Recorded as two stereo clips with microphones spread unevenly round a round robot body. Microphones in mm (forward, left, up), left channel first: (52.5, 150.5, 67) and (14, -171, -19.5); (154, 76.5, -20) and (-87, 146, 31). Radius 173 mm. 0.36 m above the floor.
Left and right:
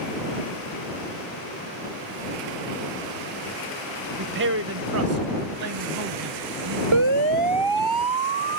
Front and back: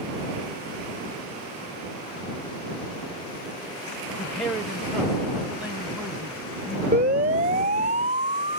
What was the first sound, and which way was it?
A man speaking, 90° right.